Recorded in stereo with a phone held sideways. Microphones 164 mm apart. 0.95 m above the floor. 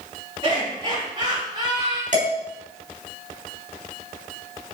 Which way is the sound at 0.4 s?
35° right (ahead or behind).